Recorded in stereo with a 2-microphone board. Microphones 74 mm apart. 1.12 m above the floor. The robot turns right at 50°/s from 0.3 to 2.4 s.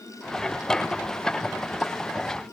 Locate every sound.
Only background noise.